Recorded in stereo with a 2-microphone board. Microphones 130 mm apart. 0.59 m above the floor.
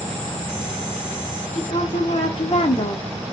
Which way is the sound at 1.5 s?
55° left (ahead or behind).